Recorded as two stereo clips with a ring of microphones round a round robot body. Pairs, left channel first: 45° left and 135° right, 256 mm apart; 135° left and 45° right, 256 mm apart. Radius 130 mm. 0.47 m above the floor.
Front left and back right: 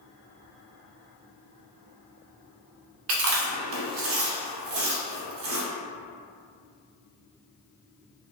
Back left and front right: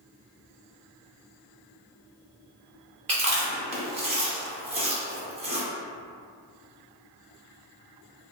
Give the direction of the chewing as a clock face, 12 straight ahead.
4 o'clock.